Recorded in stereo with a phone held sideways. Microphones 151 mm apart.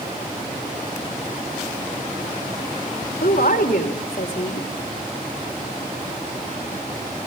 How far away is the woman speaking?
About 3.5 m.